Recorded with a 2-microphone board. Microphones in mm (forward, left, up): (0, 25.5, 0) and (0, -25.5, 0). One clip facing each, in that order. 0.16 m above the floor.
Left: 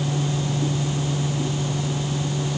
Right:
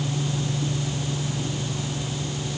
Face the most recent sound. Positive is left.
No sound to turn to.